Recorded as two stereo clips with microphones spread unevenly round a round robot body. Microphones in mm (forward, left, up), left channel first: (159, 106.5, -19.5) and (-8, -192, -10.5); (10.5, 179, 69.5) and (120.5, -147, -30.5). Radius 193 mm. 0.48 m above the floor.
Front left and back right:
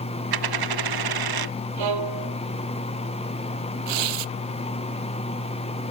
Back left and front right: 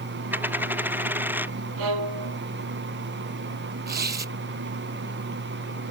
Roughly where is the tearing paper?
Behind right.